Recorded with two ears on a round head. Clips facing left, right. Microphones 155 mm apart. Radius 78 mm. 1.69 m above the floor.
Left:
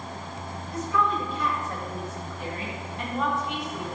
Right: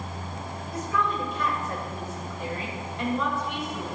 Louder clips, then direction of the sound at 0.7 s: Left 2 dB; 80° right.